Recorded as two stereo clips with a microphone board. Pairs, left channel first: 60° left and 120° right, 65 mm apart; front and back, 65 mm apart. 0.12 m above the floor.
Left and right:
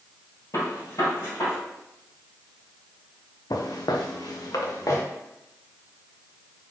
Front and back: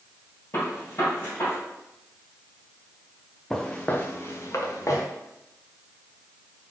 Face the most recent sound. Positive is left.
turn(degrees=30)